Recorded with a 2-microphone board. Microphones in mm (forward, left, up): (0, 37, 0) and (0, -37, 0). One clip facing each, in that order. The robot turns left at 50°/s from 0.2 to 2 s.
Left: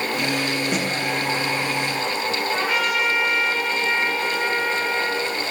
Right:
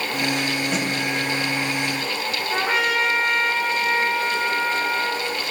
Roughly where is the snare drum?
Centre.